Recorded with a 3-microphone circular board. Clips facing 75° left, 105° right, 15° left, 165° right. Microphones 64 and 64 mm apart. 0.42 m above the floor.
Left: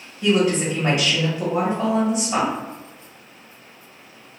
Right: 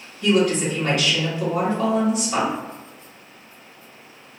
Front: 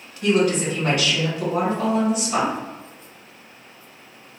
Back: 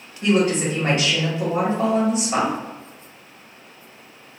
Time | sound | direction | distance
0.2 | a woman speaking | 140° left | 1.7 m